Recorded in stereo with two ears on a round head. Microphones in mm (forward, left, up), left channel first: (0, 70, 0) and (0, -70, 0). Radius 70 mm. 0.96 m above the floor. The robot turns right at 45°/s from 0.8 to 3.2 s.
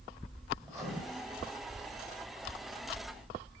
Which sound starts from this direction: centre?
Writing, at 0.6 s.